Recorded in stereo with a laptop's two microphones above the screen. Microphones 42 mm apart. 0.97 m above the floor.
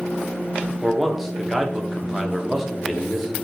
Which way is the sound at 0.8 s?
5° right (ahead or behind).